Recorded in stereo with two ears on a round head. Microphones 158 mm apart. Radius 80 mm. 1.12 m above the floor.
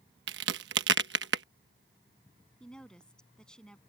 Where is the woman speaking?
5° left (ahead or behind).